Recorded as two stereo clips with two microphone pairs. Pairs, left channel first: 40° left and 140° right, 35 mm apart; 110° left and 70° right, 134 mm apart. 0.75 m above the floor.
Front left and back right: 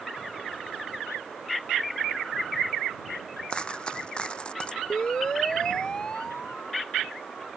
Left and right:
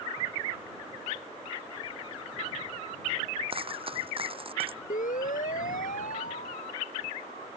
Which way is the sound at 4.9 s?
100° left.